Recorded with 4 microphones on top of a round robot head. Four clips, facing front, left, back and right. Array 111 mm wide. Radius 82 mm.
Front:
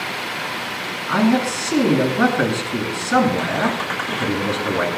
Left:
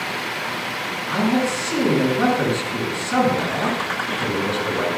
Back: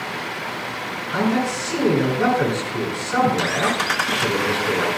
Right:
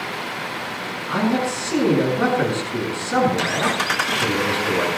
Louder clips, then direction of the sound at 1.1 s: Left 1 dB, front 4 dB; 5° right.